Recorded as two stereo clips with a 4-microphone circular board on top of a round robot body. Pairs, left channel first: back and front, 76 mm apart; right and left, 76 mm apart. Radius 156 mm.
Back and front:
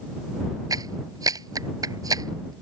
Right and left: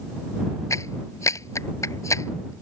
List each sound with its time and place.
0.7 s a clap: 40° right